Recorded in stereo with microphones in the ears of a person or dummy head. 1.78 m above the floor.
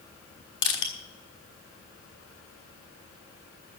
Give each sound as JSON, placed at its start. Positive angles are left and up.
{"t": 0.6, "sound": "crushing", "side_deg": 25, "distance_m": 4.0}